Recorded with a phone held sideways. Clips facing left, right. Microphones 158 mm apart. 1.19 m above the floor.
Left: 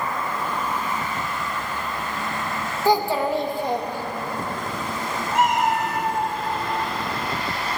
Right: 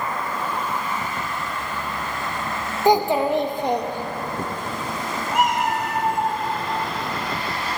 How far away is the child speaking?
About 0.7 m.